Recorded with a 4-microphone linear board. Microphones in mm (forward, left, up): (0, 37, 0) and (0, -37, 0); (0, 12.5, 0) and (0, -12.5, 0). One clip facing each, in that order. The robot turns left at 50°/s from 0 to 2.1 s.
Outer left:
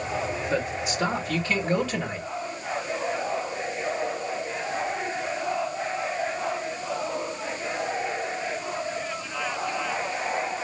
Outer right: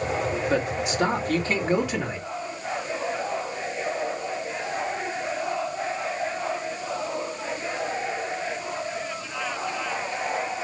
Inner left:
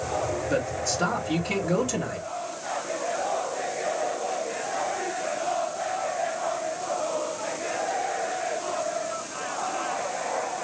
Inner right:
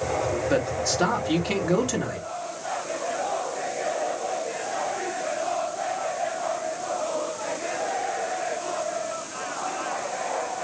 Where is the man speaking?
95° right, 1.7 m; by 2.3 s 175° right, 1.7 m.